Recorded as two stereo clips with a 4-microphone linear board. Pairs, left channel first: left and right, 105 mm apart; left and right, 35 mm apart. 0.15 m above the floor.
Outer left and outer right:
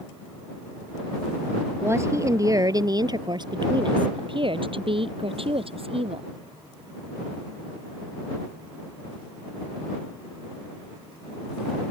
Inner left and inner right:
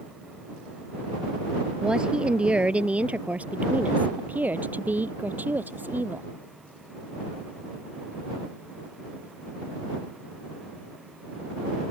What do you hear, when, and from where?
1.8 s a woman speaking: 25° right (ahead or behind); by 6.3 s 65° right (ahead or behind)